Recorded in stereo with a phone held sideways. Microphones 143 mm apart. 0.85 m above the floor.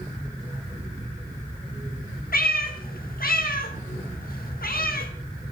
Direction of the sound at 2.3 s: 80° left.